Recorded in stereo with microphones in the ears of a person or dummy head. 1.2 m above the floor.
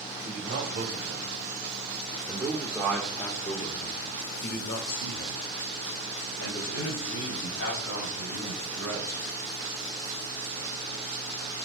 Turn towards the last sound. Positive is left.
turn(degrees=80)